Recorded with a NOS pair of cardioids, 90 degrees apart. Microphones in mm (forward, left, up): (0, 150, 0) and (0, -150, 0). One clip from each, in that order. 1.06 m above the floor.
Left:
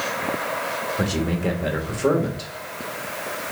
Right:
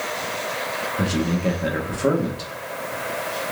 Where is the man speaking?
Straight ahead, 1.4 m.